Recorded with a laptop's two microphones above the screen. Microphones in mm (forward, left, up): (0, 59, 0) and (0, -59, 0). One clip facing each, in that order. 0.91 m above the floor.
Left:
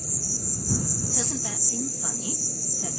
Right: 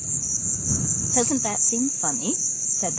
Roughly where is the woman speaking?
Right.